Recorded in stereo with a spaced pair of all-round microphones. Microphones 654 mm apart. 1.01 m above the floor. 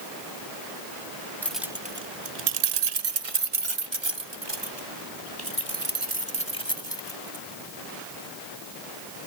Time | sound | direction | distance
1.4 | keys jangling | 5° left (ahead or behind) | ?